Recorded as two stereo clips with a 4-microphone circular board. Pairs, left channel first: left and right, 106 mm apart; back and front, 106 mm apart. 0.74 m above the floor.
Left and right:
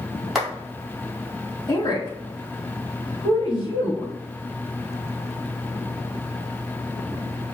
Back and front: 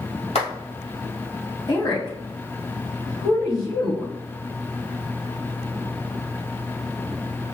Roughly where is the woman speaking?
Behind left.